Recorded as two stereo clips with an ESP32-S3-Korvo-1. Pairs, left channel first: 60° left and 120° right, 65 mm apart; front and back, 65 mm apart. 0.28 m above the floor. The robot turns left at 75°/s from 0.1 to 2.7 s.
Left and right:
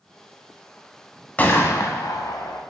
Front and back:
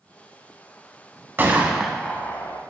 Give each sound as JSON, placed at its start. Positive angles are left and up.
{"t": 1.4, "sound": "a gunshot", "azimuth_deg": 125, "distance_m": 0.5}